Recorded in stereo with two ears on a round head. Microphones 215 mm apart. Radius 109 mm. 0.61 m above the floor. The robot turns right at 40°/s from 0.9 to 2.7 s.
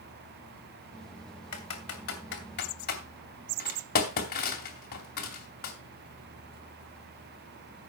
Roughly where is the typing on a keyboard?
Left.